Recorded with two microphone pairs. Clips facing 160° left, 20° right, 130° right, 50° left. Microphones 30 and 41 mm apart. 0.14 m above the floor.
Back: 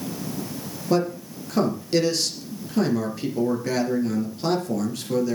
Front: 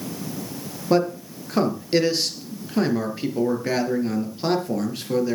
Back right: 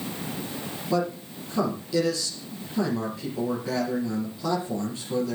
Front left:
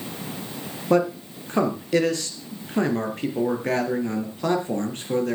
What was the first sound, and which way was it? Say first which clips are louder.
A man speaking: front 2 dB, front left 6 dB; 45° left.